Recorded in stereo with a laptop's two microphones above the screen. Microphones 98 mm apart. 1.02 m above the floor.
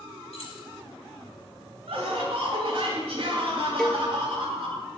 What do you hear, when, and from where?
0.3 s keys jangling: 80° left, 5.5 m
1.9 s laughter: 75° right (ahead or behind), 4 m
3.8 s a cowbell: 5° left (ahead or behind), 1.0 m